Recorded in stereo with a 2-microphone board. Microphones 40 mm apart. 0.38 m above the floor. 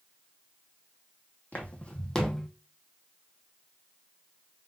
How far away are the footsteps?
About 1.1 m.